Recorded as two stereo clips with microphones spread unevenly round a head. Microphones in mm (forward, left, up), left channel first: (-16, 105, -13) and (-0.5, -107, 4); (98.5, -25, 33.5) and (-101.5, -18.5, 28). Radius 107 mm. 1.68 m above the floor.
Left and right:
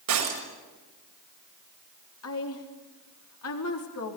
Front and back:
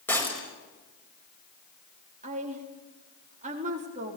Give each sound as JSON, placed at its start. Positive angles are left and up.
{"t": 0.1, "sound": "breaking glass", "azimuth_deg": -85, "distance_m": 6.0}
{"t": 2.2, "sound": "a woman speaking", "azimuth_deg": 120, "distance_m": 4.0}